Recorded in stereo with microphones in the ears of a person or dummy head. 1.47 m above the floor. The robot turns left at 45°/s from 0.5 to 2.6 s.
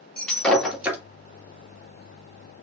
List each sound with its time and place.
0.2 s breaking glass: 10° left (ahead or behind), 1.6 m; by 1.0 s 10° right (ahead or behind), 1.6 m